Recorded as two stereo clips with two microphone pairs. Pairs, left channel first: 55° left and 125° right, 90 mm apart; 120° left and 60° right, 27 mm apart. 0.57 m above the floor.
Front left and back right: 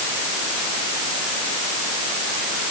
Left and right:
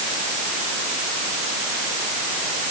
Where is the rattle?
I don't hear a rattle.